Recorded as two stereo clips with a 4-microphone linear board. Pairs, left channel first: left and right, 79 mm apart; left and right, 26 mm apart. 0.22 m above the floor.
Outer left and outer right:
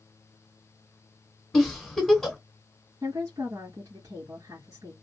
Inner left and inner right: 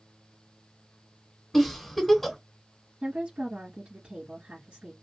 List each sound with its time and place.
1.5 s a giggle: 5° left (ahead or behind), 1.4 m
3.0 s a woman speaking: 50° right (ahead or behind), 2.0 m